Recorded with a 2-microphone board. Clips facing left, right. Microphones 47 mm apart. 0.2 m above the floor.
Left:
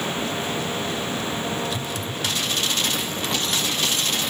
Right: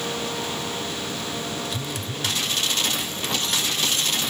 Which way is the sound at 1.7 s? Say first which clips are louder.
Left 2 dB; 35° right (ahead or behind).